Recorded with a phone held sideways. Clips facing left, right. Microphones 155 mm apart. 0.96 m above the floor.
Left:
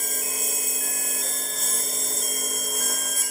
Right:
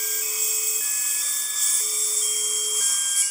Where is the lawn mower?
55° left (ahead or behind); by 3.3 s 60° left (ahead or behind).